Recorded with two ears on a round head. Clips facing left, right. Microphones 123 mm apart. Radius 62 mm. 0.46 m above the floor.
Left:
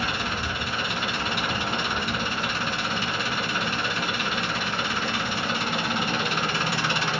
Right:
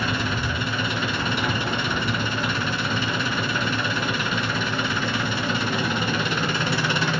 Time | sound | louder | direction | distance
0.0 | an engine running | right 3 dB | 70° right (ahead or behind) | 1.8 m